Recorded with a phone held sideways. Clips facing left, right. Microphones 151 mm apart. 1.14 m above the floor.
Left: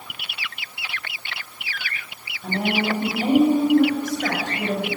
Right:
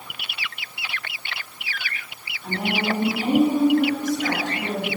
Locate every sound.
2.4 s a woman speaking: 55° left (ahead or behind), 5.5 m